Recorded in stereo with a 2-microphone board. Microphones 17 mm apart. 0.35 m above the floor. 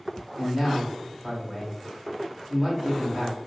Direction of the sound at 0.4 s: 25° right (ahead or behind).